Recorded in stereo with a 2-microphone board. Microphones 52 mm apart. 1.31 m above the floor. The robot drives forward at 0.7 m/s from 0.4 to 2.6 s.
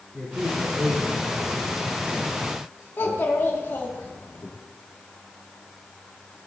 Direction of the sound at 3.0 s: 45° left (ahead or behind).